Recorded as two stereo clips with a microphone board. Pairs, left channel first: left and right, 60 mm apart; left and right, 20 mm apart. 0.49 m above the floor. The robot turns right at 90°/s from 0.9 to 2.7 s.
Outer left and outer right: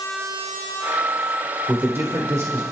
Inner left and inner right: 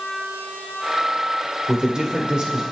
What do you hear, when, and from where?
1.7 s a man speaking: 150° right, 1.5 m; by 2.6 s 65° right, 1.5 m